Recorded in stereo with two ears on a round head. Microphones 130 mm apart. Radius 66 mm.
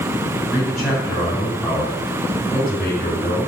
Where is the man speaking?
10° left (ahead or behind), 3 m.